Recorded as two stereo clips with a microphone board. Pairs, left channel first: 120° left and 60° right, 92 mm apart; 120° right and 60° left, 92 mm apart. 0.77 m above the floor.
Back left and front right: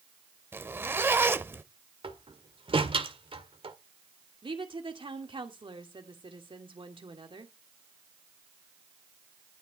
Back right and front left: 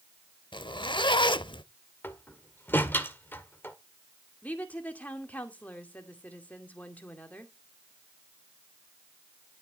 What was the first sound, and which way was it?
A zipper, 120° right.